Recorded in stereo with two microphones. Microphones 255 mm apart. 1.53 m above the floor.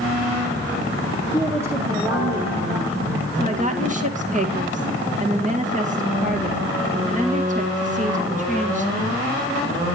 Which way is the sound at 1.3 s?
10° right (ahead or behind).